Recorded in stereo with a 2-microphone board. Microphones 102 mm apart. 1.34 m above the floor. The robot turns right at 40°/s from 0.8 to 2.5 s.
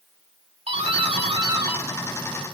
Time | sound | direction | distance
0.7 | a doorbell | 85° right | 3.5 m